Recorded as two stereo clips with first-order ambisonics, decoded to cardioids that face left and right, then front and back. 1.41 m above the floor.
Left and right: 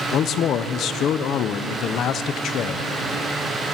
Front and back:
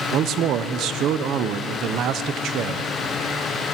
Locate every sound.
0.1 s a man speaking: 140° left, 0.9 m